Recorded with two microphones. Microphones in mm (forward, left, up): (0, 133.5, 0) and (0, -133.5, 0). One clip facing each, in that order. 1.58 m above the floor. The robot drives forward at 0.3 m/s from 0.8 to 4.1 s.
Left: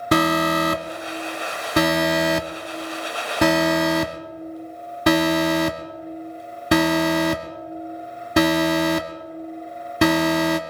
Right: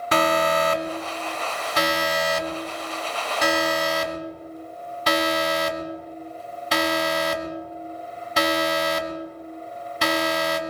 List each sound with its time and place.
0.1 s an alarm: 45° left (ahead or behind), 1.0 m; by 10.6 s 55° left (ahead or behind), 0.9 m